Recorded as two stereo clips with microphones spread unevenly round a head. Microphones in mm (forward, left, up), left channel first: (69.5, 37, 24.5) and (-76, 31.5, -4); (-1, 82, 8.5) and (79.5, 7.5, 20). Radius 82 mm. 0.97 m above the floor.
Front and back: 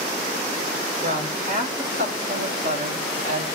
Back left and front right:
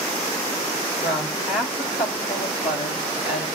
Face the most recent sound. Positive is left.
turn(degrees=150)